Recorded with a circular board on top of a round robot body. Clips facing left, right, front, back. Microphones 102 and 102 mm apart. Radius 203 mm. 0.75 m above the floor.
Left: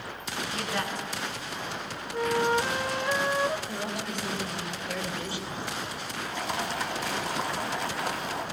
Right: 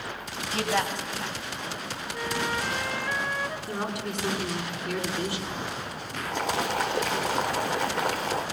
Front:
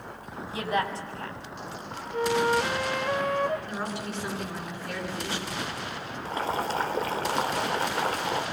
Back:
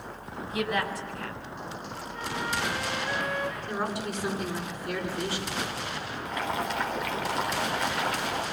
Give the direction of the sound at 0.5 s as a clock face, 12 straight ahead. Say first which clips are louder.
Right 6 dB, front 1 dB; 2 o'clock.